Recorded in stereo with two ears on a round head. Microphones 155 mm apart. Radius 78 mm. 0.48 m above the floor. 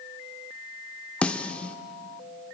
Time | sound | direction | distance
1.2 | a snare drum | 5° left (ahead or behind) | 0.7 m